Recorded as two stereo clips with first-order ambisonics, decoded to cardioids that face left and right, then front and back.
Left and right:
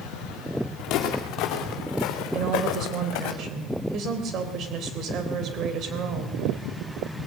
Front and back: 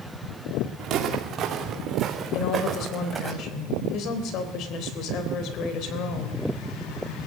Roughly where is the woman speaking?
Ahead right.